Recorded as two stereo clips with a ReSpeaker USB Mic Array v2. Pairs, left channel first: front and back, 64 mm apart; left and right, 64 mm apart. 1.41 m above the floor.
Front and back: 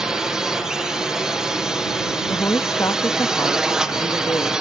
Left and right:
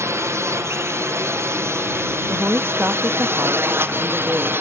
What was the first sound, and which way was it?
A drone, 105° right.